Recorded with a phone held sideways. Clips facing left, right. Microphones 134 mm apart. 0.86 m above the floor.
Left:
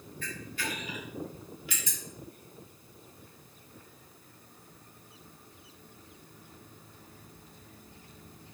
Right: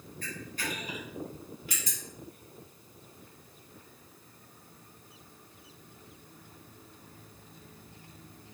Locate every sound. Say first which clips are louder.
0.2 s a camera shutter: even; 40° right (ahead or behind), 2.5 m